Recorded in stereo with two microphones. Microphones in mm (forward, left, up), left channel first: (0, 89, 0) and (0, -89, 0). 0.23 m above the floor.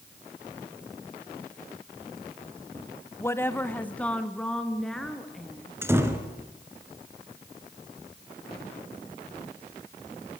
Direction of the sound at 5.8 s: 15° right (ahead or behind).